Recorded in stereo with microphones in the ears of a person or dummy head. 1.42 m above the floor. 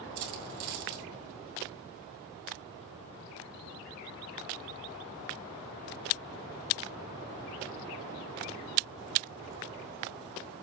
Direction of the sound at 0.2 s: 60° right (ahead or behind).